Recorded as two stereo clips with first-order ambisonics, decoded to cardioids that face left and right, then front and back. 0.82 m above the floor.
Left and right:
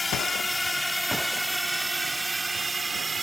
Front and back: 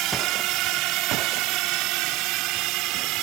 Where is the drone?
165° left; by 3.2 s 165° right.